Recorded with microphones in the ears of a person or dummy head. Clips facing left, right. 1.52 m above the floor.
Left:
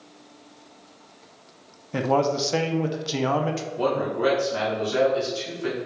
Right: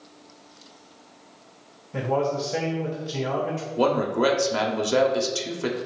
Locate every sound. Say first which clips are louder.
1.9 s a man speaking: left 2 dB; 70° left (ahead or behind), 0.5 m
3.8 s a man speaking: right 3 dB; 65° right (ahead or behind), 0.7 m